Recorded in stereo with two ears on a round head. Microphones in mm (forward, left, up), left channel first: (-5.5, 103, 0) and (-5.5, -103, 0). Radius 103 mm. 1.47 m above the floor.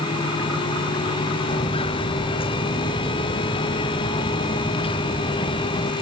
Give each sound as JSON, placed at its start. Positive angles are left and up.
{"t": 1.5, "sound": "footsteps", "side_deg": 25}